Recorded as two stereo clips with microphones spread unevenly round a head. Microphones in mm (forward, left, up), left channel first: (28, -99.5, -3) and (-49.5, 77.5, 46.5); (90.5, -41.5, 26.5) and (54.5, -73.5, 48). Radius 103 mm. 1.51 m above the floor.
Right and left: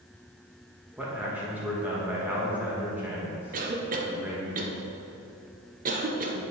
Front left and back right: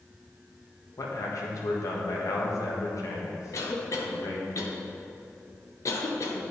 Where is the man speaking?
35° left, 1.5 m.